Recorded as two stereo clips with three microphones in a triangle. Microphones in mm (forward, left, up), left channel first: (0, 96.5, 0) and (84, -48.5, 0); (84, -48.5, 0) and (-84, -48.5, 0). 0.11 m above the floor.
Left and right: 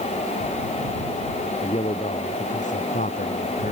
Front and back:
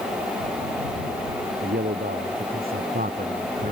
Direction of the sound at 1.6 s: 170° left.